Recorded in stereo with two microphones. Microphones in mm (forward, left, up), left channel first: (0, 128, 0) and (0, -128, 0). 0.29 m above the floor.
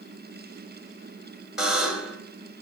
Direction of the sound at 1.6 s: Centre (ahead or behind).